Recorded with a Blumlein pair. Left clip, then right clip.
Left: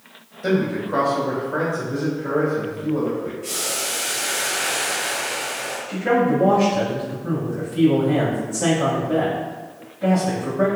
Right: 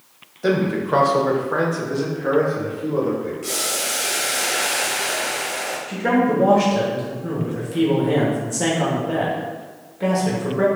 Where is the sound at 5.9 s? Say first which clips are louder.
Left 1 dB; 50° right, 1.2 m.